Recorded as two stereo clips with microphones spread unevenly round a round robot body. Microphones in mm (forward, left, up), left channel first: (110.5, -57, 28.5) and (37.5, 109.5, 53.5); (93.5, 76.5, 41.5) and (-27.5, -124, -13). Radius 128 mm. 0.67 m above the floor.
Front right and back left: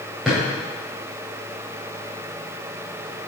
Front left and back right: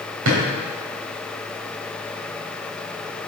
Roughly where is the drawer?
Behind.